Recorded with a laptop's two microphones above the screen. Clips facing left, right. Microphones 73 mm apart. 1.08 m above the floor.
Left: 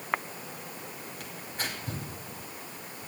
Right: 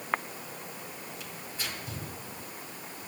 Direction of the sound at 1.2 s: 55° left (ahead or behind).